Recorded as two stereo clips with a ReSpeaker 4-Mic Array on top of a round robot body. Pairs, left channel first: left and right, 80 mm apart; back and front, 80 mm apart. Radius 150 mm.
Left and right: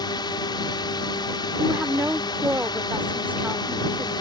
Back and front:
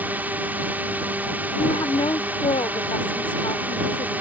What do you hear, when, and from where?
0.0 s a drone: 70° left
1.6 s a woman speaking: 160° right